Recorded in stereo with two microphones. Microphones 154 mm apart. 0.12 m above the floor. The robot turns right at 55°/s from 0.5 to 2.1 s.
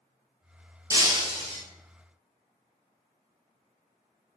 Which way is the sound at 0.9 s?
155° right.